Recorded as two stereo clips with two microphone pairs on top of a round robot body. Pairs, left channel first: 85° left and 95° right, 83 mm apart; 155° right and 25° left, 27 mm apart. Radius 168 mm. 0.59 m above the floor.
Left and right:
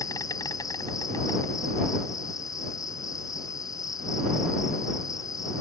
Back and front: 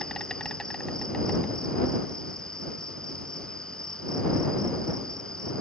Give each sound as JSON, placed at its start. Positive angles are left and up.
{"t": 0.0, "sound": "an insect", "azimuth_deg": 135}